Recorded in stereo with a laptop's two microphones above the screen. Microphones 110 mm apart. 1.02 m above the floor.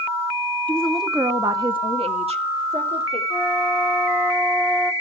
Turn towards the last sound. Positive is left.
turn(degrees=-10)  # may be behind; listen again after turning